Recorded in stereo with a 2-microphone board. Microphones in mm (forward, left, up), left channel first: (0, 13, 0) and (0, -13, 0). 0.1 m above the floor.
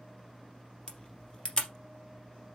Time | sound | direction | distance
0.9 | a camera shutter | 30° left (ahead or behind) | 3 m